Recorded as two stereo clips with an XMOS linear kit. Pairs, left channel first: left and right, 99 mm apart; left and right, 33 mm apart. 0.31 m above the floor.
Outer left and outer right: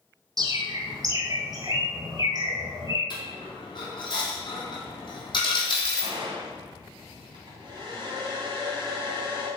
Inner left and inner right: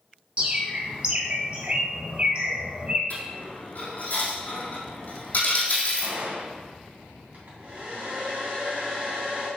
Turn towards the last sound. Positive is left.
turn(degrees=-55)  # may be behind; listen again after turning